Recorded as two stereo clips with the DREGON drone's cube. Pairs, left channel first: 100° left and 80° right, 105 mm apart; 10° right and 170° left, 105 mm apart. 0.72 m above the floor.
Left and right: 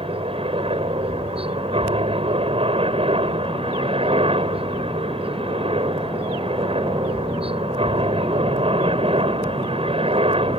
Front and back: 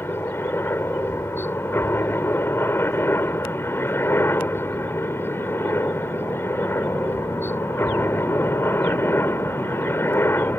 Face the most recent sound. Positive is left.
turn(degrees=-75)